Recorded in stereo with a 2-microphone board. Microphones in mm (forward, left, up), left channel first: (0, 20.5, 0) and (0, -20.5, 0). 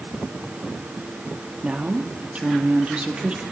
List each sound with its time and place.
1.6 s a woman speaking: 30° right (ahead or behind), 1.8 m